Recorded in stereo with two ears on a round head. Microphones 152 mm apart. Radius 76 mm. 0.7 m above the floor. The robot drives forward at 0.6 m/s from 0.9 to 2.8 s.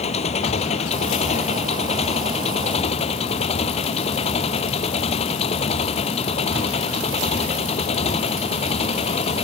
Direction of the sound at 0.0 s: 40° left (ahead or behind).